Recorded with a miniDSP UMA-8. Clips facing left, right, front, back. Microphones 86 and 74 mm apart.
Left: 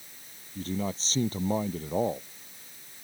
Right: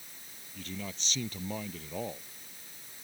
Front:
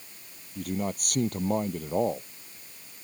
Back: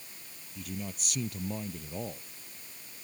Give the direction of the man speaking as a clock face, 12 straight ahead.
11 o'clock.